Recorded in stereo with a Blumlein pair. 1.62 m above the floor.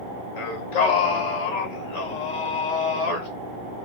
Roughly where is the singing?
Ahead left.